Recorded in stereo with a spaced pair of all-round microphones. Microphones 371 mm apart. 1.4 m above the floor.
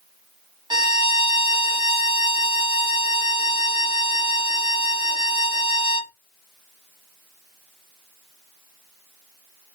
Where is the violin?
10° right (ahead or behind), 1.0 m.